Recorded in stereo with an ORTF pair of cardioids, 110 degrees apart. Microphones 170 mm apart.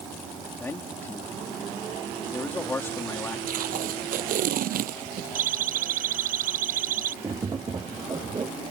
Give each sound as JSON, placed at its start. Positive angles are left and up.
{"t": 0.6, "sound": "a man speaking", "azimuth_deg": 15}
{"t": 3.5, "sound": "tape being pulled", "azimuth_deg": -65}
{"t": 5.3, "sound": "a siren", "azimuth_deg": -60}
{"t": 7.2, "sound": "tapping", "azimuth_deg": -25}